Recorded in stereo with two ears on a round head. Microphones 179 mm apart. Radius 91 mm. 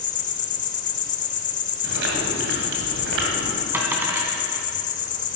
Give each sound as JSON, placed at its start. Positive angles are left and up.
{"t": 0.0, "sound": "an insect", "side_deg": 40, "distance_m": 0.8}
{"t": 1.8, "sound": "chewing", "side_deg": -65, "distance_m": 2.0}
{"t": 3.7, "sound": "a dropped coin", "side_deg": -10, "distance_m": 1.6}